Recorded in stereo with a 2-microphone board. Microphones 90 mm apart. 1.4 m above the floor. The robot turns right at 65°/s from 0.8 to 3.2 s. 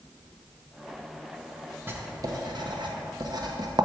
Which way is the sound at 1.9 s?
25° right (ahead or behind).